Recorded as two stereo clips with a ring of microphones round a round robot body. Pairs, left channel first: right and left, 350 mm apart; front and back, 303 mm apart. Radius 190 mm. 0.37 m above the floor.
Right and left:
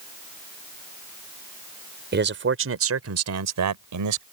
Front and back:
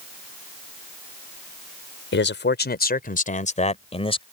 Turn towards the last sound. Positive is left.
turn(degrees=70)